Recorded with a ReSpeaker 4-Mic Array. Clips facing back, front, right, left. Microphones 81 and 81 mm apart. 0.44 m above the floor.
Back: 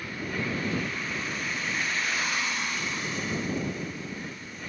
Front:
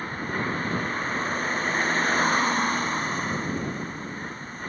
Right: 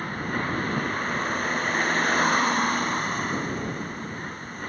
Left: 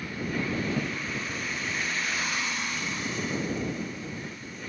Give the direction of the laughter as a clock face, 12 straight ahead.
I don't hear laughter.